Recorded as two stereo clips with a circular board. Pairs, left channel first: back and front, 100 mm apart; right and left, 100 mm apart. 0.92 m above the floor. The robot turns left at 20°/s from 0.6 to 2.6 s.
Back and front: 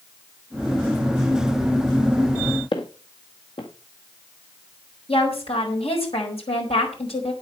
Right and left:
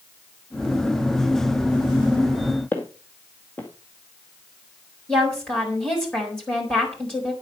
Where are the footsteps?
160° right, 1.8 m.